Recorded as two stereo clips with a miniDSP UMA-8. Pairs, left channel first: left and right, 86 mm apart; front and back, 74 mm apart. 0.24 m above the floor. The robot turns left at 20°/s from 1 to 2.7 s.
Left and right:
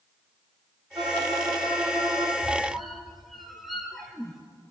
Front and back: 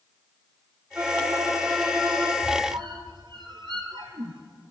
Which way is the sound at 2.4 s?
175° right.